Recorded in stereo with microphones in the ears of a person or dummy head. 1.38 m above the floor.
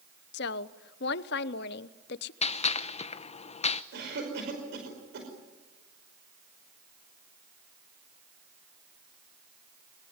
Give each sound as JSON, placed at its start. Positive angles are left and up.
{"t": 0.3, "sound": "a woman speaking", "side_deg": 60, "distance_m": 0.9}
{"t": 2.4, "sound": "a gunshot", "side_deg": 35, "distance_m": 0.8}
{"t": 3.9, "sound": "a cough", "side_deg": -60, "distance_m": 5.5}